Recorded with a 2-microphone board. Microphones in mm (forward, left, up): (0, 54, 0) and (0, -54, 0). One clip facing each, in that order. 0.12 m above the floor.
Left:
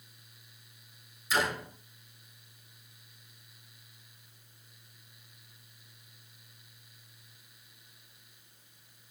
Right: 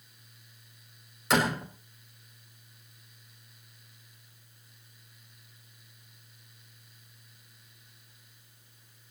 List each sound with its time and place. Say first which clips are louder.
1.3 s a door slam: right 4 dB; 75° right (ahead or behind), 5 m